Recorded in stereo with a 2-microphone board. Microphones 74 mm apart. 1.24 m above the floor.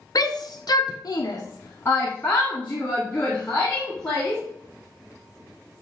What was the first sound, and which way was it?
A shout, 55° left (ahead or behind).